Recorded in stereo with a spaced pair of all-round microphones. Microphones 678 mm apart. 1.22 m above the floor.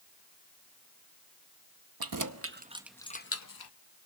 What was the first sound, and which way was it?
Keys jangling, 35° right (ahead or behind).